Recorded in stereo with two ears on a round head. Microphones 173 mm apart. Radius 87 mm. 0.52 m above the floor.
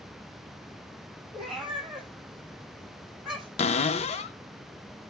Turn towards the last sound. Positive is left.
turn(degrees=35)  # may be behind; listen again after turning